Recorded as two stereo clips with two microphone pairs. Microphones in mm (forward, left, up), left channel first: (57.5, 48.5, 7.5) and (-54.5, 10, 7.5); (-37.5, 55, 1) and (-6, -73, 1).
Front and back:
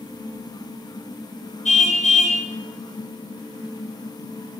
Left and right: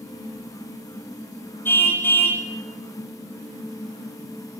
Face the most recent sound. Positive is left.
turn(degrees=30)